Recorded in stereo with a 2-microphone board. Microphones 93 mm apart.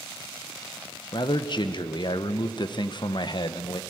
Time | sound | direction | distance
1.1 | a man speaking | 55° left (ahead or behind) | 0.8 m